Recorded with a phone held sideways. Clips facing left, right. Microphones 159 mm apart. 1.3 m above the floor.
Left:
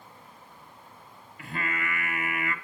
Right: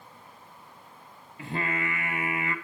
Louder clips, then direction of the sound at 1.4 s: Right 3 dB; 30° right (ahead or behind).